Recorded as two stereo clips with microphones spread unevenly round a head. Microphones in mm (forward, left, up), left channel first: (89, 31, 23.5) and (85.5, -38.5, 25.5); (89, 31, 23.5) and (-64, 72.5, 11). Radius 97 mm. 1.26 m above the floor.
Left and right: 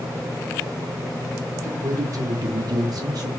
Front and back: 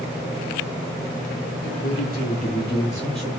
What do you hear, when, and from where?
1.6 s a man speaking: 50° right, 1.0 m; by 3.3 s 110° right, 0.6 m